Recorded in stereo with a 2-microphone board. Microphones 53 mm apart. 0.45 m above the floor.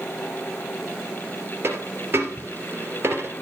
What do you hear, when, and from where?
1.6 s a dropped coin: 45° right (ahead or behind), 3 m